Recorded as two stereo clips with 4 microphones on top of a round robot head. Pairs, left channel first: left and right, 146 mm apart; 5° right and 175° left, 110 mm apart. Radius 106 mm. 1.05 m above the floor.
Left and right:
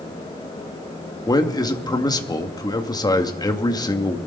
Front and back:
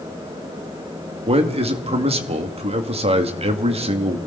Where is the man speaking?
155° left, 2.5 m.